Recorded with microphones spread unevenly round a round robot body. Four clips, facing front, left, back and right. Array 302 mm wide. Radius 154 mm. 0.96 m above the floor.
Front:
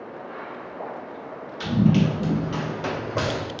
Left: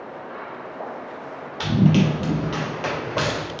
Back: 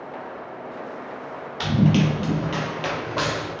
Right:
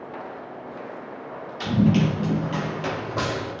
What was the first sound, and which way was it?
Running footsteps, 130° left.